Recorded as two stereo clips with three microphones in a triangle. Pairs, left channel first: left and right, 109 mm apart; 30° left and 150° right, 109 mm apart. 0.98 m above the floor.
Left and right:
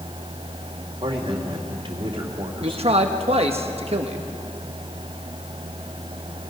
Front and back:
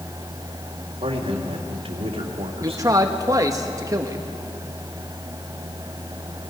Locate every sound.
1.0 s a man speaking: 130° right, 2.5 m
2.6 s a man speaking: 95° right, 1.1 m